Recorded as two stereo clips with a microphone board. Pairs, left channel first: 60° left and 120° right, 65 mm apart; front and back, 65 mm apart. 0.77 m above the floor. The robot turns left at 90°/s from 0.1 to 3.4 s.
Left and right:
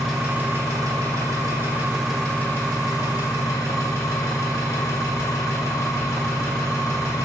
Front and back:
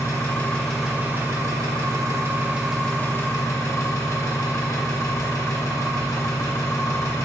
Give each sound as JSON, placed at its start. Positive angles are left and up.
{"t": 0.0, "sound": "an engine running", "azimuth_deg": -30, "distance_m": 1.7}